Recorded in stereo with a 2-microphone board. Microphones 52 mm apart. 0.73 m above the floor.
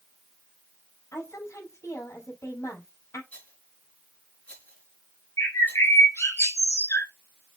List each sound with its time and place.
1.1 s a woman speaking: 75° left (ahead or behind), 5 m
3.3 s a rattle: 30° left (ahead or behind), 5 m
5.4 s a bird: 70° left (ahead or behind), 3 m